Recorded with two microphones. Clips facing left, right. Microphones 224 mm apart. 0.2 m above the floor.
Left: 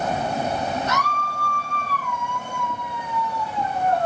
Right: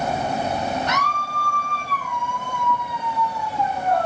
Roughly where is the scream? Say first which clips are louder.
Even; right.